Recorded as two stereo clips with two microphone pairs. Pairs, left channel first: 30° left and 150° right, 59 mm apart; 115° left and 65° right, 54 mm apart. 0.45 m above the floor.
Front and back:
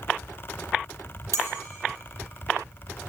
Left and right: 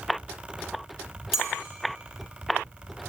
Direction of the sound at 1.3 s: 145° right.